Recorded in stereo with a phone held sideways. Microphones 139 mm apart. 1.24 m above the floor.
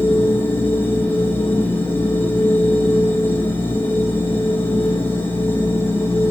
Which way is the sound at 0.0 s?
15° left (ahead or behind).